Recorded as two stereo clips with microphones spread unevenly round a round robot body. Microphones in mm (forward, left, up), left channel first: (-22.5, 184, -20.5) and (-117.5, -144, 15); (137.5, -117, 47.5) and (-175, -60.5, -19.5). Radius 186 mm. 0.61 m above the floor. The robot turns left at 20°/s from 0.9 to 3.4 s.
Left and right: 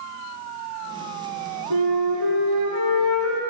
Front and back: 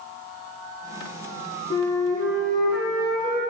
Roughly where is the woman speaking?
I don't hear a woman speaking.